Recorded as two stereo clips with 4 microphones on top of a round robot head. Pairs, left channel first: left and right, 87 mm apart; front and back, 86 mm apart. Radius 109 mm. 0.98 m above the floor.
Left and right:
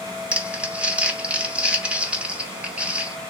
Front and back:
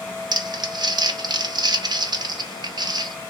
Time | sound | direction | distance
0.3 | crumpling | 165° right | 0.8 m